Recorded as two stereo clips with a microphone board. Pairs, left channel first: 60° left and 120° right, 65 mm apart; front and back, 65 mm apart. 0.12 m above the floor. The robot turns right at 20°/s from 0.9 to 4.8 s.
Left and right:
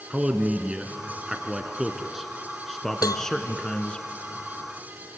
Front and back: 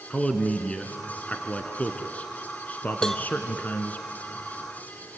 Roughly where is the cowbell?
Left.